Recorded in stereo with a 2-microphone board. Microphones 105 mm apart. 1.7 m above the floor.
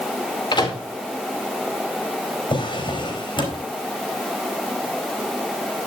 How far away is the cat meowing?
I don't hear a cat meowing.